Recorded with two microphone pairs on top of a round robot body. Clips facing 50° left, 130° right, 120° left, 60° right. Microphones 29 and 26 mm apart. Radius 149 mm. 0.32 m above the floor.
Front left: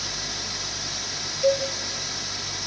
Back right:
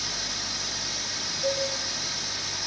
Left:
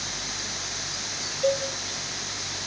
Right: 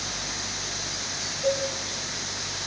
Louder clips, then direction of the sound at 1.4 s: Front left 7 dB, left 1 dB; 120° left.